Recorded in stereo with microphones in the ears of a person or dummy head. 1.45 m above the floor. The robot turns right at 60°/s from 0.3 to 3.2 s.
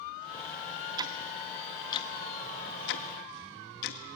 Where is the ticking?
25° right (ahead or behind), 1.2 m; by 4.0 s 60° left (ahead or behind), 1.2 m.